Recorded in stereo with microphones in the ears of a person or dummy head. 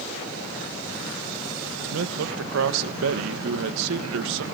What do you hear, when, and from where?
1.8 s a man speaking: 80° right, 1.5 m